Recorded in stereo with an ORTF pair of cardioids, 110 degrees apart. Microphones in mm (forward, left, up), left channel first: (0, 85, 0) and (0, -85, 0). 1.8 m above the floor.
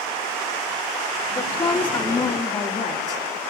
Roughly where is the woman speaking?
Ahead left.